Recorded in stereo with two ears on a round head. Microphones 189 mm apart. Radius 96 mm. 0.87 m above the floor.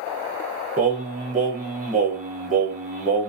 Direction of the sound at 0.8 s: 35° right (ahead or behind).